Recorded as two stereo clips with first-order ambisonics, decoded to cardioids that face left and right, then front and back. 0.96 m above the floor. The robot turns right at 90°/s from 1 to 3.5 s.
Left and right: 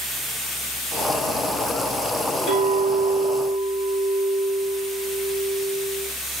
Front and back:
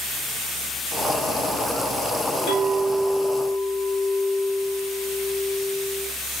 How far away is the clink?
About 1.4 m.